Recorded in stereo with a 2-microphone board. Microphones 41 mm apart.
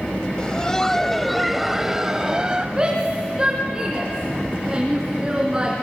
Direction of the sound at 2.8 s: 20° right (ahead or behind).